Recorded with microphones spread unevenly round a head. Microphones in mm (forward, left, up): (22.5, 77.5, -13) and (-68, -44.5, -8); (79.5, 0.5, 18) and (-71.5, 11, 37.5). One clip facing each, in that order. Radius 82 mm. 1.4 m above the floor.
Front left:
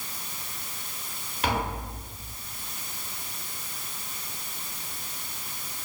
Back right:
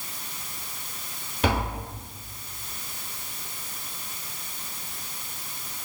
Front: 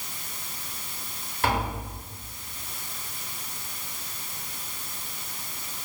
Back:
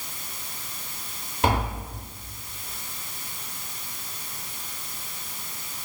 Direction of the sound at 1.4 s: 110° right.